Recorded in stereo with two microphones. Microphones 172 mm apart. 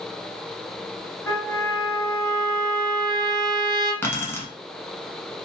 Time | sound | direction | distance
1.3 | a trumpet | 15° left (ahead or behind) | 1.0 m
4.0 | keys jangling | 15° left (ahead or behind) | 0.8 m